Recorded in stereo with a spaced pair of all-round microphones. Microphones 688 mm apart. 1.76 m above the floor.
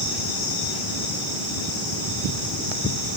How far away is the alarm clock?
No alarm clock in this recording.